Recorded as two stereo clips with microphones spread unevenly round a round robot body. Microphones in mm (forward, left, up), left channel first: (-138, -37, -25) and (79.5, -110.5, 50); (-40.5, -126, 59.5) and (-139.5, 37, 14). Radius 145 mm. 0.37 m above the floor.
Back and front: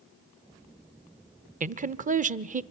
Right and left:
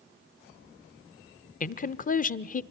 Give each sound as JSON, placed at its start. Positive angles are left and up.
{"t": 1.6, "sound": "a woman speaking", "azimuth_deg": -80, "distance_m": 0.9}